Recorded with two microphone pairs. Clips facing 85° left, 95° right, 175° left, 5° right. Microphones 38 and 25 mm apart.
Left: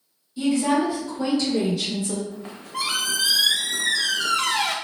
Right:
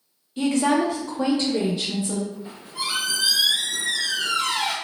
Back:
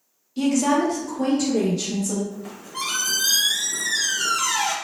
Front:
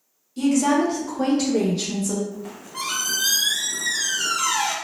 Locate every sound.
0.4 s a woman speaking: 115° right, 0.6 m; by 2.2 s 20° right, 1.0 m
2.3 s a squeak: 85° left, 0.5 m